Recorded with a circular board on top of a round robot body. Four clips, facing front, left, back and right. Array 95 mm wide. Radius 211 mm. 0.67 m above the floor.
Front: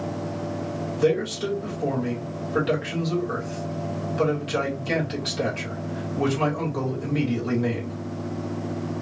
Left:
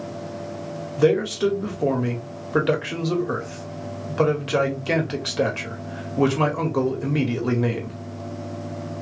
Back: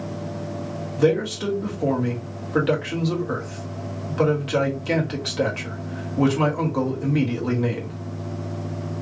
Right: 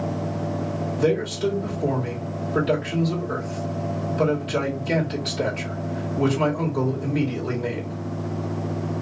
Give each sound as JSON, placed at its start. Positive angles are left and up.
{"t": 1.0, "sound": "a man speaking", "azimuth_deg": 110, "distance_m": 2.0}